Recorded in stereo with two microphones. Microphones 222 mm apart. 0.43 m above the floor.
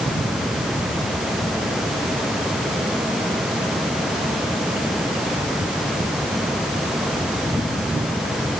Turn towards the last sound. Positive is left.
No sound to turn to.